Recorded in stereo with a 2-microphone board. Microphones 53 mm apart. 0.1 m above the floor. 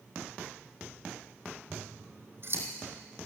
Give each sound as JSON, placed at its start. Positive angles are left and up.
{"t": 1.7, "sound": "scissors", "side_deg": -50, "distance_m": 2.5}